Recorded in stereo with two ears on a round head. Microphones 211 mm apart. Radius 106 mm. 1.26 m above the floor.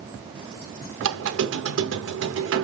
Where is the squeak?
60° right (ahead or behind), 1.0 m.